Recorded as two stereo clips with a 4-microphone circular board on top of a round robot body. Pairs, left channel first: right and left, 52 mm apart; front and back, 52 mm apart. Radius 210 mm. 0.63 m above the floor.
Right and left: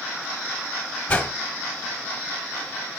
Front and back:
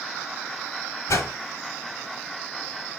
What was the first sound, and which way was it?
A whoosh, 20° right.